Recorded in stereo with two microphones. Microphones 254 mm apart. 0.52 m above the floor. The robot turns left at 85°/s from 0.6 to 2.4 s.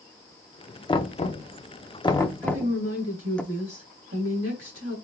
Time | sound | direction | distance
0.9 | knocking | 20° left (ahead or behind) | 0.5 m
2.4 | a woman speaking | 65° right (ahead or behind) | 3 m